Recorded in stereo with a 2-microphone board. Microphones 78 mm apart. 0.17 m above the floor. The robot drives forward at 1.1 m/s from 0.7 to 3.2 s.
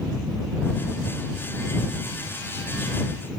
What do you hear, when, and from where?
Only background noise.